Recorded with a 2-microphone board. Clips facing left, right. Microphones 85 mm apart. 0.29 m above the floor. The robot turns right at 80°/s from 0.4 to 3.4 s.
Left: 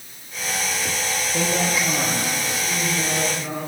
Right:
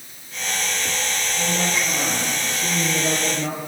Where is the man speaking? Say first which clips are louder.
Left 2 dB; 115° left, 7 m; by 3.6 s 80° right, 7 m.